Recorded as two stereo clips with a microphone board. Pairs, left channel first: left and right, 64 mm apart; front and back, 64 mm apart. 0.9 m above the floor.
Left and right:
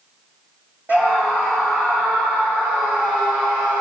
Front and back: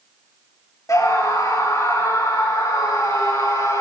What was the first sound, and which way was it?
A scream, 30° right.